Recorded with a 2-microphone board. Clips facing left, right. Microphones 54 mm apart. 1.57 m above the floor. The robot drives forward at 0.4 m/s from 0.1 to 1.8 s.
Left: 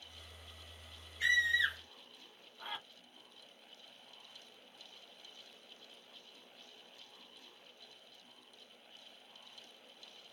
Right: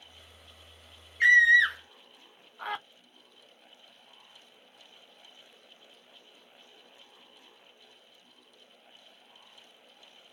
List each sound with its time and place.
1.2 s a scream: 50° right (ahead or behind), 0.8 m; by 2.8 s 65° right (ahead or behind), 0.7 m